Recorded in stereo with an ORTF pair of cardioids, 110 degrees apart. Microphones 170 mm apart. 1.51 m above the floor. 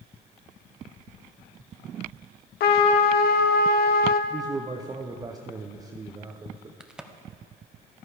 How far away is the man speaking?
About 0.6 m.